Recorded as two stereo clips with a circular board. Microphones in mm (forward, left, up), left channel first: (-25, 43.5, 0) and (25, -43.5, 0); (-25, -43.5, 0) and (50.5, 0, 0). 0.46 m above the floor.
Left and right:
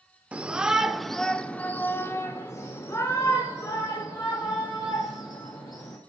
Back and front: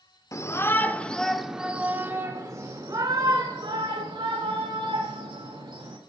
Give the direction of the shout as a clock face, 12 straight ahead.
4 o'clock.